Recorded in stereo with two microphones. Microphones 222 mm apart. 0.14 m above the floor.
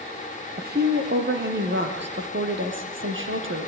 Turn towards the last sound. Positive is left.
turn(degrees=-65)  # may be behind; listen again after turning